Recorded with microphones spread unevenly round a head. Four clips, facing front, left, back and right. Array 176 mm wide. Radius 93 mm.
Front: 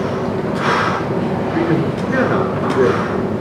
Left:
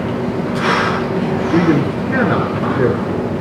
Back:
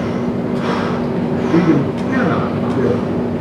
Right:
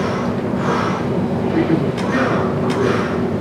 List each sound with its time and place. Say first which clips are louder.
1.5 s a man speaking: left 4 dB, back 5 dB; 130° left, 8.5 m